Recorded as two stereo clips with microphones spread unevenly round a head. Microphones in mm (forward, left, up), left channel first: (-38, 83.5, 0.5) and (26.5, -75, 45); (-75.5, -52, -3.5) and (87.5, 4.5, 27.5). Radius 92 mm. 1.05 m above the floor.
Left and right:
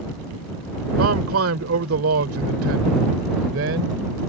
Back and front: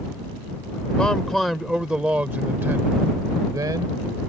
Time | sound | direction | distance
1.0 | a man speaking | 75° right | ?